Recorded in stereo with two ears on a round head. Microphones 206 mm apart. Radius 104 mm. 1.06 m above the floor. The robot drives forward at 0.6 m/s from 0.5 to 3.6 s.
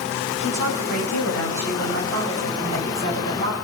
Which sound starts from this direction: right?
A woman speaking, at 0.4 s.